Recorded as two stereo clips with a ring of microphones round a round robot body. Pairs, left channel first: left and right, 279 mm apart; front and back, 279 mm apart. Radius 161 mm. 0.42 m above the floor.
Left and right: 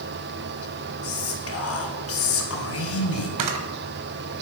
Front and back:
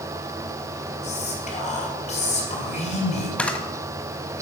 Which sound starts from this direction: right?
A camera shutter, at 3.4 s.